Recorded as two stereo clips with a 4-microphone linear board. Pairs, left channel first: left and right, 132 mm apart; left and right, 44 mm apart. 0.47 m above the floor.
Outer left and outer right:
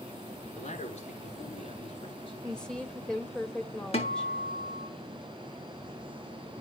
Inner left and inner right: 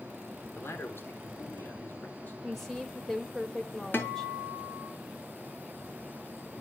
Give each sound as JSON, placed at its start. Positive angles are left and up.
{"t": 0.6, "sound": "a man speaking", "side_deg": 55, "distance_m": 6.5}
{"t": 2.4, "sound": "a woman speaking", "side_deg": 5, "distance_m": 2.5}
{"t": 3.9, "sound": "a guitar", "side_deg": 50, "distance_m": 4.5}